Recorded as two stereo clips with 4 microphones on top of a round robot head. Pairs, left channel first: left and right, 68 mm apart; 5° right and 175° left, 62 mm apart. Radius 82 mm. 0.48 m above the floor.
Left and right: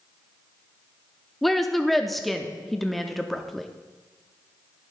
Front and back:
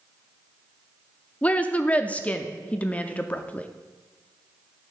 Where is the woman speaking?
5° left, 0.7 m.